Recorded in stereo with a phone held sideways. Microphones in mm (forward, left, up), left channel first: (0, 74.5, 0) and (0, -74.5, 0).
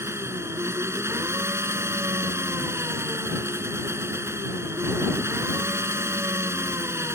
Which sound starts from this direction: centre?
An engine running, at 0.0 s.